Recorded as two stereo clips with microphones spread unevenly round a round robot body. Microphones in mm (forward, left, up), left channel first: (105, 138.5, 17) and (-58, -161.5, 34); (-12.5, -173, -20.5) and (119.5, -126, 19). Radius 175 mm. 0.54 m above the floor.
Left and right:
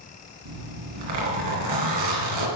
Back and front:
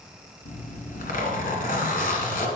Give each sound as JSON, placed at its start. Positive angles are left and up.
{"t": 0.5, "sound": "a zipper", "azimuth_deg": -140, "distance_m": 2.0}